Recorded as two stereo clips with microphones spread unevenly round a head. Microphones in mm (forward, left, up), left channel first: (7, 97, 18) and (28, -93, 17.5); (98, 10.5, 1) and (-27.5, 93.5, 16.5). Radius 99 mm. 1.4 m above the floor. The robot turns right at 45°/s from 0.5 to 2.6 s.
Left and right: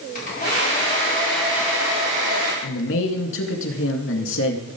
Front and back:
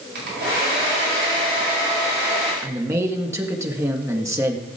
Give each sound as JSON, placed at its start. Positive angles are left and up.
{"t": 0.1, "sound": "a hair dryer", "azimuth_deg": 145, "distance_m": 4.5}
{"t": 2.6, "sound": "a man speaking", "azimuth_deg": 75, "distance_m": 2.0}